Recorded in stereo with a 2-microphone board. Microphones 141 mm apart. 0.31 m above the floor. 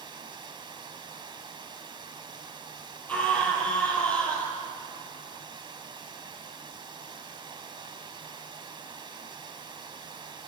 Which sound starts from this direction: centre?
A scream, at 3.1 s.